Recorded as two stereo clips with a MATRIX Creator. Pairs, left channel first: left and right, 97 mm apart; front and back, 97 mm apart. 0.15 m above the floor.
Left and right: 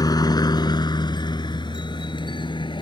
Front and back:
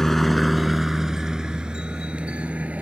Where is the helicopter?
85° left; by 2.8 s 110° left.